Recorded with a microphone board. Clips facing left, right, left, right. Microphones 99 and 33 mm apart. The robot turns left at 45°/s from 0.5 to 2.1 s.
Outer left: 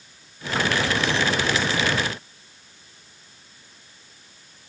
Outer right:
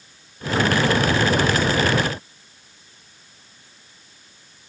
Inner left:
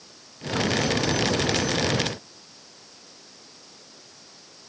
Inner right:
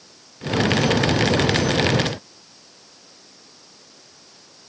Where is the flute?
I don't hear a flute.